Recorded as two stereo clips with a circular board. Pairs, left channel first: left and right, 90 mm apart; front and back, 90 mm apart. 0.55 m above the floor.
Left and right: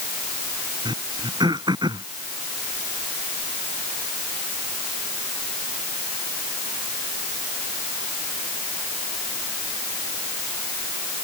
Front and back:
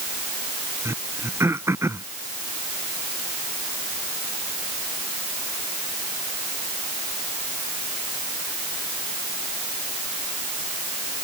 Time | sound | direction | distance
0.8 | throat clearing | 120° right | ?